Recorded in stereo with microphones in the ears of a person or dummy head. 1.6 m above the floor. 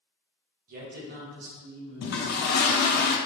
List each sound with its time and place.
0.7 s a man speaking: 45° right (ahead or behind), 1.3 m; by 2.6 s 70° right (ahead or behind), 1.7 m
2.0 s a toilet flushing: 60° left (ahead or behind), 0.6 m